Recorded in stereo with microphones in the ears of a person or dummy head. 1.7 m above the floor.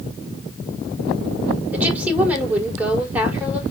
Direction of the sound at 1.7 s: 15° right (ahead or behind).